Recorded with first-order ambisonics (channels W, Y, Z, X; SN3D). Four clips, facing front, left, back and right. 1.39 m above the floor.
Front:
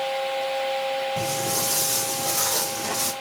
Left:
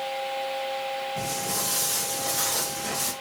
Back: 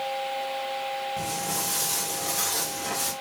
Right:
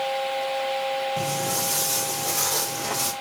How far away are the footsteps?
About 2.5 m.